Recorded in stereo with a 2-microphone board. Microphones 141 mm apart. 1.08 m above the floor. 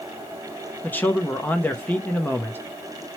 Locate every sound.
0.8 s a man speaking: 15° left (ahead or behind), 0.5 m